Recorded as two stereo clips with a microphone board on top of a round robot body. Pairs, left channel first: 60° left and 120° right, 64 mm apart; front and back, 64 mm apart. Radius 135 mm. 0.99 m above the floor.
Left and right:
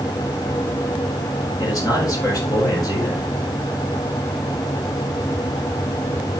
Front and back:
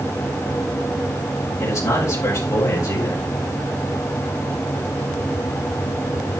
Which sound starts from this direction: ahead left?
A man speaking, at 1.6 s.